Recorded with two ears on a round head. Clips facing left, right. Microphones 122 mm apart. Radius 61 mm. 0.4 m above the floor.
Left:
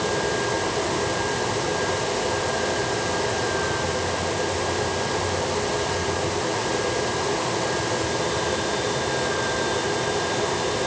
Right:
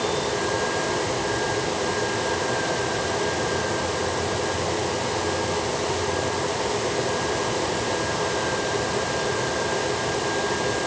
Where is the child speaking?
I don't hear a child speaking.